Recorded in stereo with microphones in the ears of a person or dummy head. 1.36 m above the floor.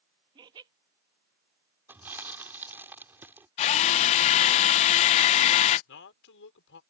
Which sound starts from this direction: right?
Laughter, at 0.3 s.